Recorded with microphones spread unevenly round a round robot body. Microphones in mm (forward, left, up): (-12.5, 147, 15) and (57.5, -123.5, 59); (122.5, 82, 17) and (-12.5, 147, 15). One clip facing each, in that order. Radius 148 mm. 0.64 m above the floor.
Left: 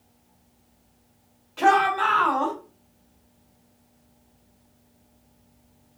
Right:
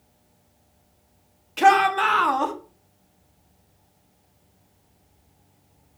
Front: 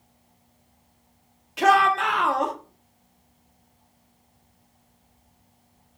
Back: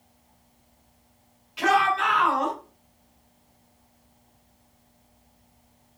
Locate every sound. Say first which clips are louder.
1.6 s a shout: right 2 dB, front 3 dB; 40° right, 1.1 m